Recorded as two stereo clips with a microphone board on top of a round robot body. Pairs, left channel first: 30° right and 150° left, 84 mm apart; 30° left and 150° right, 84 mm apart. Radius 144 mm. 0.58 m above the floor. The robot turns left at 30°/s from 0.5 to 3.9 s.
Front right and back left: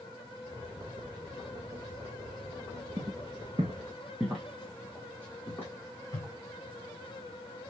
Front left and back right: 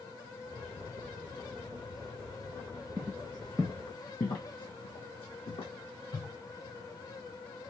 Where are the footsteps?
165° left, 1.0 m; by 6.3 s 30° left, 2.5 m.